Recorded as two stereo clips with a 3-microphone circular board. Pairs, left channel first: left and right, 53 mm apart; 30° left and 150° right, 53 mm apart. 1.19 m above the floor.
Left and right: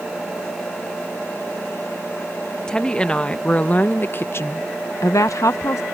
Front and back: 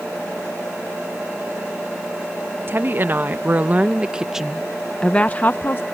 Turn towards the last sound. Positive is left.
turn(degrees=70)